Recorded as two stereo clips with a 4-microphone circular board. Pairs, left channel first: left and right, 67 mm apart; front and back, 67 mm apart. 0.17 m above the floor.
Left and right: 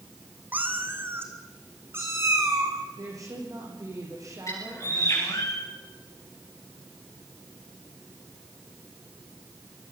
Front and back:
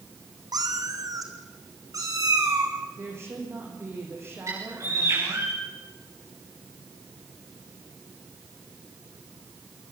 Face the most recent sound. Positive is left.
turn(degrees=135)